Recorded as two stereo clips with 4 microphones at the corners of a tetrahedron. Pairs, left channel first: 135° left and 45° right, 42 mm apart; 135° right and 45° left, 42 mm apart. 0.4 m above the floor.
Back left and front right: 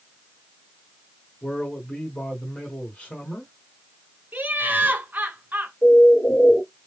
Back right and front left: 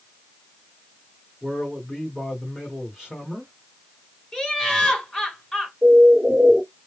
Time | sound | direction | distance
1.4 | a man speaking | 110° left | 1.3 m
4.3 | laughter | 55° right | 1.1 m
5.8 | a bird | 110° left | 1.5 m